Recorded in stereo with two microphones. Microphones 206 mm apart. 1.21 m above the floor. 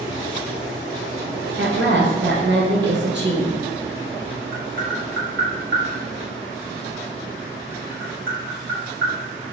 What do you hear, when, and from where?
1.6 s a woman speaking: 60° right (ahead or behind), 1.3 m
4.5 s tapping: 65° right (ahead or behind), 1.6 m